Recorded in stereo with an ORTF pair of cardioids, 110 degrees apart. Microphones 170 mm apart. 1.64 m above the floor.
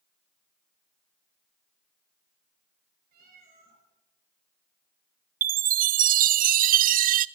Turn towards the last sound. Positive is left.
turn(degrees=-55)